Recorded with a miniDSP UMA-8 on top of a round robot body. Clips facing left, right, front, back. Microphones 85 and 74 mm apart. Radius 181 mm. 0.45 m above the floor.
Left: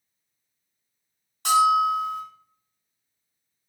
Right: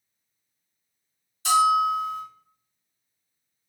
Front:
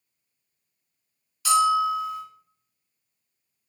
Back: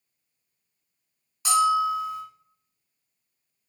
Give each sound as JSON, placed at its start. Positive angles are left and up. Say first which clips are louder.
{"t": 1.4, "sound": "a bell", "louder": "left 1 dB, front 1 dB", "azimuth_deg": 115, "distance_m": 1.8}